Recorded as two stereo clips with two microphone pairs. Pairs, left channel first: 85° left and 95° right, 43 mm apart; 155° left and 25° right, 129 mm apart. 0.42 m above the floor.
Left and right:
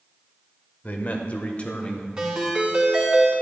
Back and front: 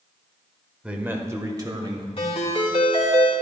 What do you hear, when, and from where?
0.8 s a man speaking: 60° left, 1.0 m; by 2.1 s 25° left, 1.6 m
2.2 s a ringtone: 165° right, 2.5 m